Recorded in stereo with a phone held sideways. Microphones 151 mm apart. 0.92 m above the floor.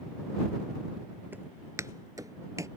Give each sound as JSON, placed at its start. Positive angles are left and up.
{"t": 1.3, "sound": "footsteps", "side_deg": -10}